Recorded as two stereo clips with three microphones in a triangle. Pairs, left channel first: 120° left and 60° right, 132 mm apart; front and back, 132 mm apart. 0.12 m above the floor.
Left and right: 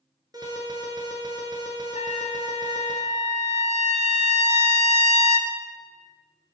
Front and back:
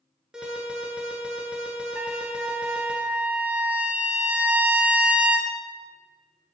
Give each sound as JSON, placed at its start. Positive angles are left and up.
{"t": 0.3, "sound": "an alarm", "azimuth_deg": -100, "distance_m": 1.4}
{"t": 1.9, "sound": "a trumpet", "azimuth_deg": 105, "distance_m": 0.5}